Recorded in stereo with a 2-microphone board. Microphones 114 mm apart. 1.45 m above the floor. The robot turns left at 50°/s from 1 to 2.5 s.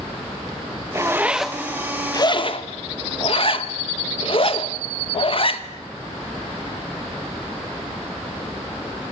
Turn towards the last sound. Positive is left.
turn(degrees=50)  # may be behind; listen again after turning